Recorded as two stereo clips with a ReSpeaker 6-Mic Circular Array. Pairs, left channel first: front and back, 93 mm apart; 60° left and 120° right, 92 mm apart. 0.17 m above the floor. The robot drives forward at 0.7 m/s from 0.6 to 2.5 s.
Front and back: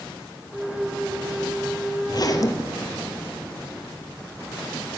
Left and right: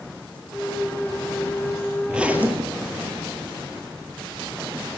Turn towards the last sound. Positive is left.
turn(degrees=-50)